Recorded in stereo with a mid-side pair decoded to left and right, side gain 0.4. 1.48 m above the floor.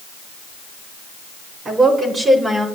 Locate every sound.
1.6 s a woman speaking: 40° right, 4.5 m; by 2.7 s 35° right, 5 m